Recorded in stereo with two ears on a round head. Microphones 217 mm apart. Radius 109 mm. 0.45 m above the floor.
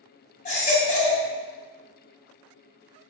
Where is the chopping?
I don't hear chopping.